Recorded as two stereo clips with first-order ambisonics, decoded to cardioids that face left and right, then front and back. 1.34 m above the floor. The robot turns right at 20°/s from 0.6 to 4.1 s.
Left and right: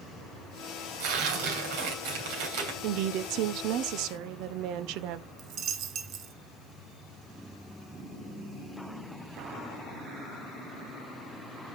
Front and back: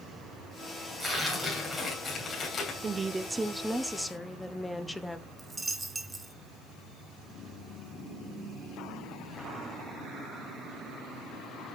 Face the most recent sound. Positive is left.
turn(degrees=-100)